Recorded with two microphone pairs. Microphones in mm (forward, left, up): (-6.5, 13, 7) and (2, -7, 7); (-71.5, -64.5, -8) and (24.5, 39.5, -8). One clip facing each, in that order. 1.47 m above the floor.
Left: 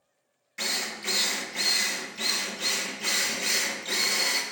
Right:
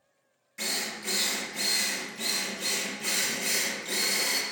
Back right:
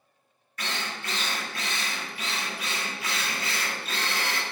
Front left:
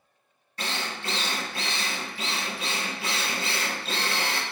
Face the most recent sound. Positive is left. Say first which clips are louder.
# left 2 dB, front left 2 dB
turn(degrees=80)